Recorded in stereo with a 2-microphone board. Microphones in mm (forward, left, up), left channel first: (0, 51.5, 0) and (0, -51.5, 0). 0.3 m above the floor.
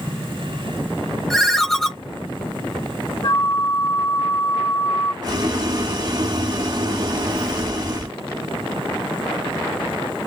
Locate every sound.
1.3 s a ringtone: 5° left (ahead or behind), 0.6 m
3.2 s a flute: 65° left (ahead or behind), 2.5 m
5.2 s boiling: 45° right (ahead or behind), 0.9 m